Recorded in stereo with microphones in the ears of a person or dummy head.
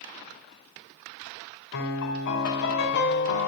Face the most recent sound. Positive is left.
turn(degrees=60)  # may be behind; listen again after turning